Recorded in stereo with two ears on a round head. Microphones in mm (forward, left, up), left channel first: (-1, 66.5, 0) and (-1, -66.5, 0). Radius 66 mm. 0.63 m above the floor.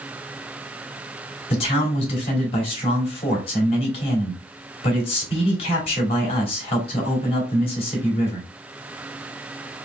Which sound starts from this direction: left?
A man speaking, at 1.5 s.